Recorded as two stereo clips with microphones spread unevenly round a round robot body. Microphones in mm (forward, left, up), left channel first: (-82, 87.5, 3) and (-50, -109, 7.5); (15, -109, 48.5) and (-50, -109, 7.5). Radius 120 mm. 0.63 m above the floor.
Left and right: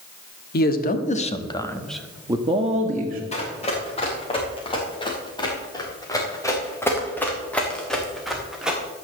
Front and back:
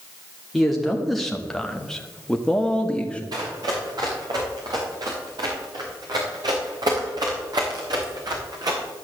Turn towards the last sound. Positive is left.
turn(degrees=-165)